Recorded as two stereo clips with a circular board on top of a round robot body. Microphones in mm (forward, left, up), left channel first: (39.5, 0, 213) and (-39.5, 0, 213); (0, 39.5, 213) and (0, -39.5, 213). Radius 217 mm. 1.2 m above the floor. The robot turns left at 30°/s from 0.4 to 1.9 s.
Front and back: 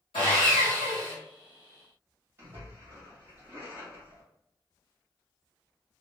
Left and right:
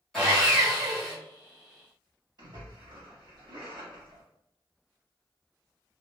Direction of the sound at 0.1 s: 5° left.